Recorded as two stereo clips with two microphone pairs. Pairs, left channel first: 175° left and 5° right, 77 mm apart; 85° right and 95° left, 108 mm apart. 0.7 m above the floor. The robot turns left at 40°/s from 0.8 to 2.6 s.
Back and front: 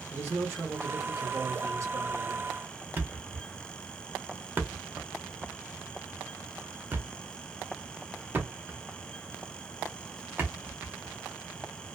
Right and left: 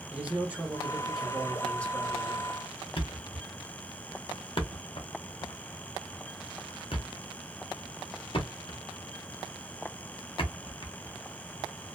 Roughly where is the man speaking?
Ahead left.